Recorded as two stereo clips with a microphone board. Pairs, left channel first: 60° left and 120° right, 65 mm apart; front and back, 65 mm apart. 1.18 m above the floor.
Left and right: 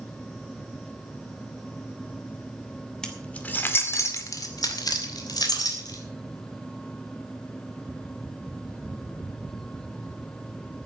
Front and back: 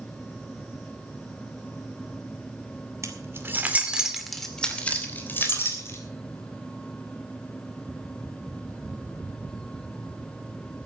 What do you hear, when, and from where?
3.0 s keys jangling: 140° left, 2.5 m; by 6.0 s 50° left, 3.5 m